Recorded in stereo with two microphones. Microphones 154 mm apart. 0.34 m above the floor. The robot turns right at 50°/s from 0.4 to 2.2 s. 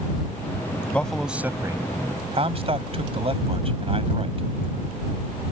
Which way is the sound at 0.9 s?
10° left (ahead or behind).